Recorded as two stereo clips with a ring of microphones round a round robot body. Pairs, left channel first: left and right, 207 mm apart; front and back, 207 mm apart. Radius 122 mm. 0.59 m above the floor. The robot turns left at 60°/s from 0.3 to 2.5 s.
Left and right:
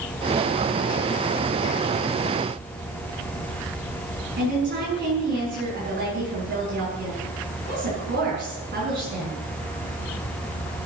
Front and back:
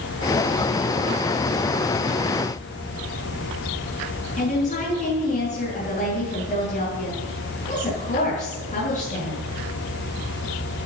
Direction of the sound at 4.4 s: 55° right.